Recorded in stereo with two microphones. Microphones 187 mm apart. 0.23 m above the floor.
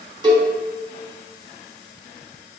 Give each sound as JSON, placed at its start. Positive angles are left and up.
{"t": 0.2, "sound": "a cowbell", "side_deg": -25, "distance_m": 1.2}